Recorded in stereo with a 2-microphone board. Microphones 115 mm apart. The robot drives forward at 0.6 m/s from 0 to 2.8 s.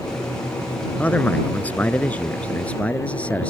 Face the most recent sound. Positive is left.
turn(degrees=10)  # may be behind; listen again after turning